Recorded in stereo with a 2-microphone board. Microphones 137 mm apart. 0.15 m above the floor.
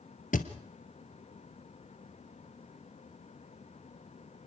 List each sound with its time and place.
0.3 s a thud: 70° left (ahead or behind), 1.3 m